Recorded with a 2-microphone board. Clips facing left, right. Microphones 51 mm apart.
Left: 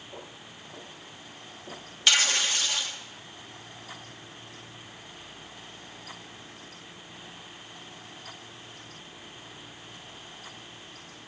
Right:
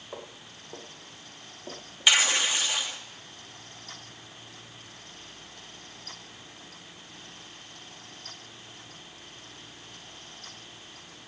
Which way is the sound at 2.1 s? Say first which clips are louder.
Right 1 dB; 20° right (ahead or behind).